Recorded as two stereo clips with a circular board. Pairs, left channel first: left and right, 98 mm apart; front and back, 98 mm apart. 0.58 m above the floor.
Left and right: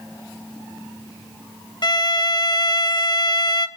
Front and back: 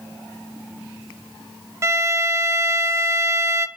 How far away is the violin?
About 0.6 m.